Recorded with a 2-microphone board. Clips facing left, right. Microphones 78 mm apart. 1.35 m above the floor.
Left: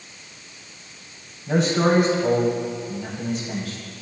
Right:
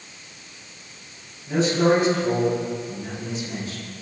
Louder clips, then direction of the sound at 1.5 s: Even; 75° left (ahead or behind).